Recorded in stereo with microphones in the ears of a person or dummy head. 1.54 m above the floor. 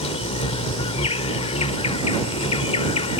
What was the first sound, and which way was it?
An insect, 30° left (ahead or behind).